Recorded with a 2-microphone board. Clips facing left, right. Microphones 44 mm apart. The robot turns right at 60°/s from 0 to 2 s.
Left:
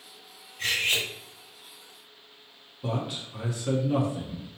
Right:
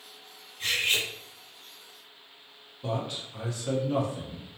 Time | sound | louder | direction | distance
0.6 | cutlery clinking | left 1 dB | 80° left | 1.6 m
2.8 | a man speaking | left 1 dB | 5° left (ahead or behind) | 0.9 m